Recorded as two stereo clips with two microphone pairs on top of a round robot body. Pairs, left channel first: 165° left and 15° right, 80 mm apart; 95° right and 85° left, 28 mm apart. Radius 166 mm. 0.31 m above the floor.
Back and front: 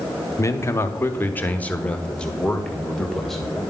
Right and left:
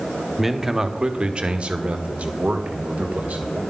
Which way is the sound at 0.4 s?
155° left.